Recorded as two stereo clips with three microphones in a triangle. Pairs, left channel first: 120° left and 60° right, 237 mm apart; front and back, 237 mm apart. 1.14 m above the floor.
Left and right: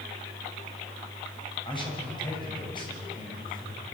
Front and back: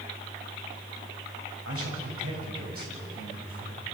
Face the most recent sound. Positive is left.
turn(degrees=-170)